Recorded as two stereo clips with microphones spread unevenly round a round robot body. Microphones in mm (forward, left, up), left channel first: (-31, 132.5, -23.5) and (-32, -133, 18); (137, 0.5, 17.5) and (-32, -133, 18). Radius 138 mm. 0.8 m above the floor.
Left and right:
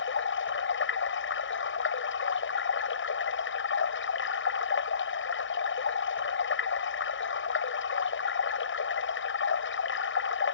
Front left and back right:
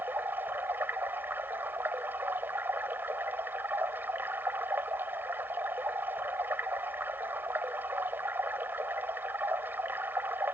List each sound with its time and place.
0.0 s running water: 135° left